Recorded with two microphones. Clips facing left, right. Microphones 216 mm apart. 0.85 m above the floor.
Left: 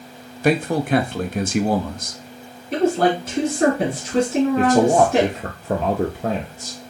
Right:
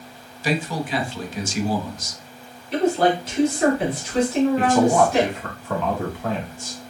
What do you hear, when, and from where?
0.4 s a man speaking: 60° left (ahead or behind), 0.5 m
2.7 s a woman speaking: 55° left (ahead or behind), 1.6 m
4.6 s a man speaking: 40° left (ahead or behind), 0.7 m